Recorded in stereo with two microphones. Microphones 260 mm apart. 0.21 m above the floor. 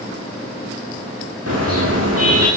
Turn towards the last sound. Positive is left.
turn(degrees=-65)  # may be behind; listen again after turning